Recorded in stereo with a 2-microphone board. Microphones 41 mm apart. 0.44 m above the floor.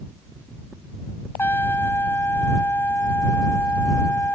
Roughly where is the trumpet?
Left.